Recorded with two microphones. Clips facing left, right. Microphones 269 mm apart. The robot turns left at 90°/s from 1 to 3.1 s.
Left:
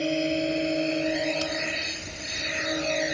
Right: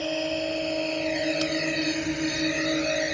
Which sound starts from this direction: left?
A drone, at 0.0 s.